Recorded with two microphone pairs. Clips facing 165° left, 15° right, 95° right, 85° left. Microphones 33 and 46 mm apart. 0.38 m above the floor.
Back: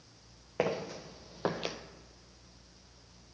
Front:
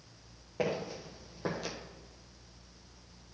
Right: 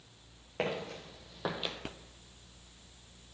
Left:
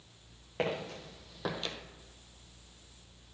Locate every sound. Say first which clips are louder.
0.6 s footsteps: back 1 dB, left 1 dB; 175° left, 1.6 m; by 1.8 s 165° right, 0.5 m